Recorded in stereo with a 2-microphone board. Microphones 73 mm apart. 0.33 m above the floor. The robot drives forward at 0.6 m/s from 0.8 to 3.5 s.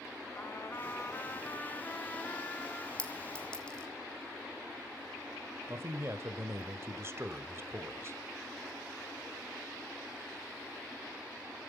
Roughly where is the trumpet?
Left.